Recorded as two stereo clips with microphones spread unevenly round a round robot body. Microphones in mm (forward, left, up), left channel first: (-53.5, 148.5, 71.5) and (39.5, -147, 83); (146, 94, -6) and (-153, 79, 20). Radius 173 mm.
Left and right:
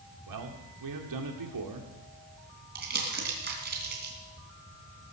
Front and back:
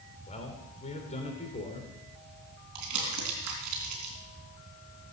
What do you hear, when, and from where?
0.3 s a man speaking: 65° right, 2 m
2.8 s crumpling: 130° right, 3.5 m